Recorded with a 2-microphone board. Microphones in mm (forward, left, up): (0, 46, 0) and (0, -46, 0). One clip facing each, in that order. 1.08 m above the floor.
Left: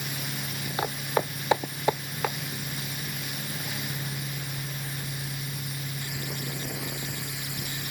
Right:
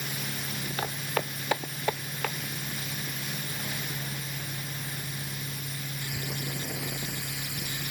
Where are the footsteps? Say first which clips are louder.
Left 5 dB; 20° left (ahead or behind).